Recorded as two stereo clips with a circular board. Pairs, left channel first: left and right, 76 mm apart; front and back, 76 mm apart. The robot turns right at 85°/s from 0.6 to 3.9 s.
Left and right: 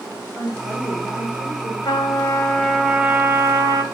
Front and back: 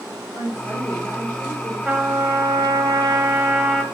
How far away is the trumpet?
About 2 m.